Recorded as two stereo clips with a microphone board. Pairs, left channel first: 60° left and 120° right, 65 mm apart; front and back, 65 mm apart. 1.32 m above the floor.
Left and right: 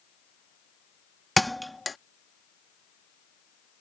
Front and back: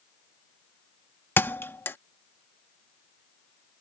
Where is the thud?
30° right.